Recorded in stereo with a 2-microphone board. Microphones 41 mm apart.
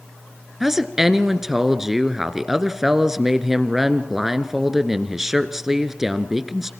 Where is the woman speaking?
10° right (ahead or behind), 1.3 m.